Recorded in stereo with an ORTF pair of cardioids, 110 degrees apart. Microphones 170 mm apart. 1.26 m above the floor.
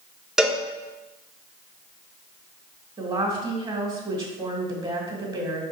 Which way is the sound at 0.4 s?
5° right.